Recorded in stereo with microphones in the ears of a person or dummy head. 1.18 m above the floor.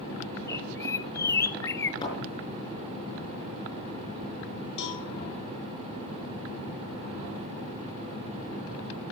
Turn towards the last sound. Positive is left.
turn(degrees=60)  # may be behind; listen again after turning